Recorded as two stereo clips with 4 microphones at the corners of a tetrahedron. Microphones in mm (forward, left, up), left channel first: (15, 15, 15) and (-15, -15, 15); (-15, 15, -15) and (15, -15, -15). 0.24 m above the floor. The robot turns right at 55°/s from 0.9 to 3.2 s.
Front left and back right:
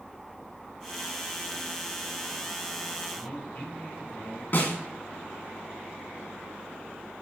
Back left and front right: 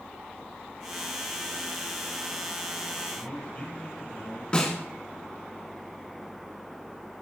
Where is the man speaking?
80° left, 3 m; by 4.4 s 85° left, 3 m.